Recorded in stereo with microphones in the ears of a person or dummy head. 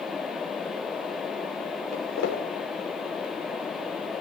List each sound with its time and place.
1.9 s footsteps: 70° left (ahead or behind), 5 m